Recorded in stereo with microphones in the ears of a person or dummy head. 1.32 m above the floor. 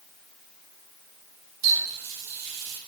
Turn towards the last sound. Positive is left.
turn(degrees=-15)  # may be behind; listen again after turning